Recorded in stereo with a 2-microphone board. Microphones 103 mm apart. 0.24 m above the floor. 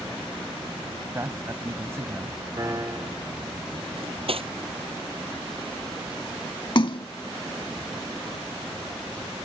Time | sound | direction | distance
1.1 | a man speaking | 25° right (ahead or behind) | ?
2.6 | a piano | 30° right (ahead or behind) | ?
4.0 | cutlery clinking | 65° right (ahead or behind) | ?
6.8 | a splash | 50° left (ahead or behind) | ?